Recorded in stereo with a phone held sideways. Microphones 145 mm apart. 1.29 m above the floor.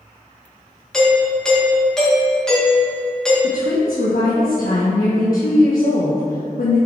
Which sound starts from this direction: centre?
A doorbell, at 0.9 s.